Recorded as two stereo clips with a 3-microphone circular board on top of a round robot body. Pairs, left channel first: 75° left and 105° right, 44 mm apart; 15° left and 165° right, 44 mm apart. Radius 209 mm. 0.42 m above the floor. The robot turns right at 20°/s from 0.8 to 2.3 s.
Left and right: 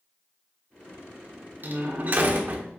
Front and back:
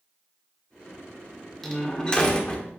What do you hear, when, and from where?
1.6 s a door slam: 65° right, 1.5 m; by 2.7 s 50° right, 1.5 m